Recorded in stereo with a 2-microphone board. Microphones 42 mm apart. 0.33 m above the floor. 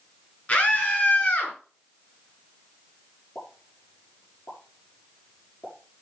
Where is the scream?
35° left (ahead or behind), 5.5 m.